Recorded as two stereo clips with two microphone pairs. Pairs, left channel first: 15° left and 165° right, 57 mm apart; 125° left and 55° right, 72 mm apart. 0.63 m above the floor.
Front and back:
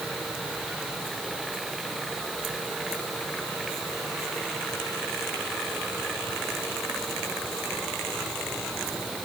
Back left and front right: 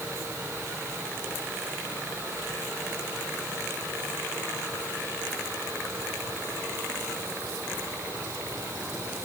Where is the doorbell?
No doorbell in this recording.